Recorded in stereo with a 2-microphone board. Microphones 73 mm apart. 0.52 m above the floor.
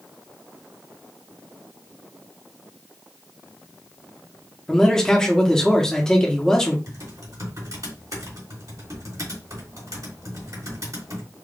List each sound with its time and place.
4.7 s a man speaking: 5° left (ahead or behind), 1.1 m
6.9 s typing on a keyboard: 55° right (ahead or behind), 2.5 m